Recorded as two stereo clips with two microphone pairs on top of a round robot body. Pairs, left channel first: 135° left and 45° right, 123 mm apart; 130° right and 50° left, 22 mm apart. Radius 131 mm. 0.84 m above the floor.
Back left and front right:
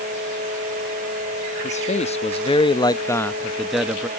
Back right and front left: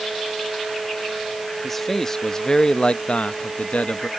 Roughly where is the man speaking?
Behind left.